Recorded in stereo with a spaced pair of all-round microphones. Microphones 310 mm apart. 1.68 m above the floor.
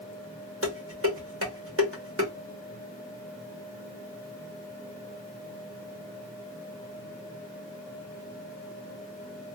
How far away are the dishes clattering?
About 1.2 m.